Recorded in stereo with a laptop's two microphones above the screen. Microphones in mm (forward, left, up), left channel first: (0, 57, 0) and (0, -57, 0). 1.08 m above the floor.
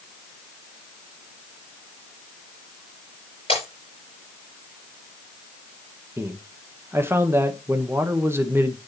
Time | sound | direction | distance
3.5 | breaking glass | 55° left (ahead or behind) | 6 m
6.2 | a man speaking | 20° right (ahead or behind) | 0.9 m